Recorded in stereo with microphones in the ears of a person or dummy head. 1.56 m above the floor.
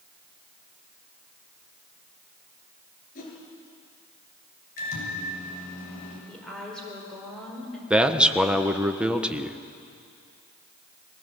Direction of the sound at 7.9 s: 5° right (ahead or behind).